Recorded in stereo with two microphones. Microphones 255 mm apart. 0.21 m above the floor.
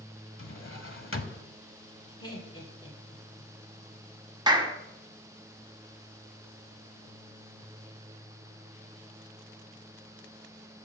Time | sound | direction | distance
0.4 | a drawer | 55° left (ahead or behind) | 0.8 m
2.2 | laughter | 15° left (ahead or behind) | 2 m
4.5 | a clap | 20° right (ahead or behind) | 1.0 m